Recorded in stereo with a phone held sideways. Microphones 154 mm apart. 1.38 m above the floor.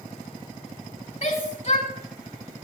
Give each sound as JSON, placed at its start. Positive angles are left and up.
{"t": 1.2, "sound": "a shout", "side_deg": 40, "distance_m": 3.5}